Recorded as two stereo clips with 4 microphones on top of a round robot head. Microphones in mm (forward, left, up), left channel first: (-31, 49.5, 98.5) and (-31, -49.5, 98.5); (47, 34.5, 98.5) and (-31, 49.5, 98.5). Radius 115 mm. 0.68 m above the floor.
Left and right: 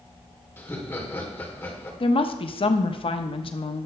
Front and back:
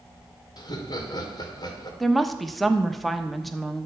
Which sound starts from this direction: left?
A woman speaking, at 2.0 s.